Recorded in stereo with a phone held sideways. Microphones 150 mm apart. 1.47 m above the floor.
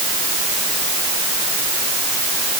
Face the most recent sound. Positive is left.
No sound to turn to.